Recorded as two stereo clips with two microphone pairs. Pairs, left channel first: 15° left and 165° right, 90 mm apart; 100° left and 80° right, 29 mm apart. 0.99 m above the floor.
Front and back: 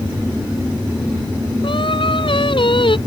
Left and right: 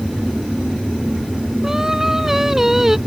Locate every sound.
1.6 s singing: 5° right